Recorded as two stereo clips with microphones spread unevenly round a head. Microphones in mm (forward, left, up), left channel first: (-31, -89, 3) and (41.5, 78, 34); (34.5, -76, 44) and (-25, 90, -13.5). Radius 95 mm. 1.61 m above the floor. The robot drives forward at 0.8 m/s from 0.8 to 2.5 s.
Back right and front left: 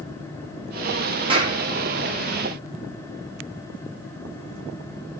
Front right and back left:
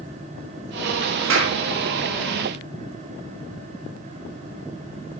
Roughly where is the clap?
Behind left.